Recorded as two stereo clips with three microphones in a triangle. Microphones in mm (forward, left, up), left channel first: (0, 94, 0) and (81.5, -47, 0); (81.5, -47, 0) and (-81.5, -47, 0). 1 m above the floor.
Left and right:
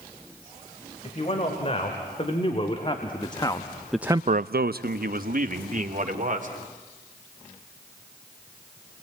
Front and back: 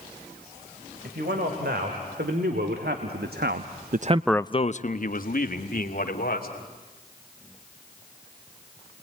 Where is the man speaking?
170° left, 4 m; by 6.5 s 25° right, 3 m.